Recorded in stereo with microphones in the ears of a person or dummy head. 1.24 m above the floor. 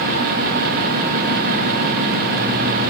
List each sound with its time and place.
Only background noise.